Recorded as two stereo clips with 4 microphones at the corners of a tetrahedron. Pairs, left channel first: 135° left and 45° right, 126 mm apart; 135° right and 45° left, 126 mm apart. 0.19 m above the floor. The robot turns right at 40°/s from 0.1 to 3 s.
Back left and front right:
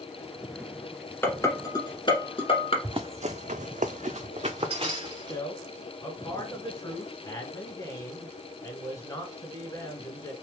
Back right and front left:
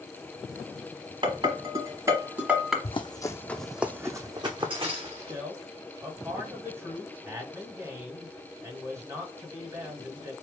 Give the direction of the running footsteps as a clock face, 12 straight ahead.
3 o'clock.